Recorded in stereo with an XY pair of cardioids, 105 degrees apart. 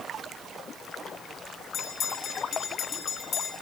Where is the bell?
65° left, 9 m.